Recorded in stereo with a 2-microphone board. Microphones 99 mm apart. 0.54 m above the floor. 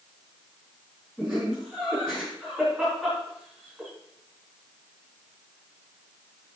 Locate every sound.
1.2 s laughter: 5° right (ahead or behind), 4.5 m